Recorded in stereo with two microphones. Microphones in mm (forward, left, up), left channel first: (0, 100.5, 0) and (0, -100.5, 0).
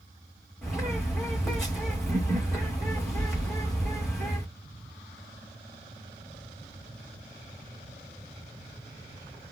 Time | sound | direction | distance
0.6 | a bird | centre (ahead or behind) | 3.5 m